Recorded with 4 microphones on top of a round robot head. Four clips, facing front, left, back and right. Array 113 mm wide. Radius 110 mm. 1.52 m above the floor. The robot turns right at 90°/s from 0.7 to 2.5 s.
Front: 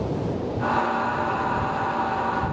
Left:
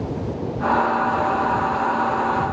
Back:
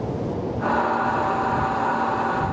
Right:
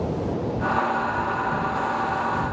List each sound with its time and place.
Only background noise.